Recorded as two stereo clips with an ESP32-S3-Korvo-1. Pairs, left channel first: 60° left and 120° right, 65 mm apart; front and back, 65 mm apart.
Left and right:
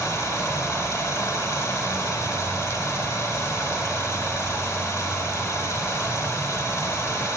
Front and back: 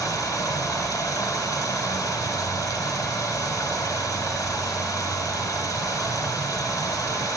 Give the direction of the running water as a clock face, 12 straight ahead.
11 o'clock.